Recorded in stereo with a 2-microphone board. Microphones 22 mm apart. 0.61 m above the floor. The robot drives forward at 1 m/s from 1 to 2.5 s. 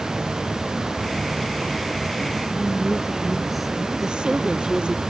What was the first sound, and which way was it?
A woman speaking, 5° right (ahead or behind).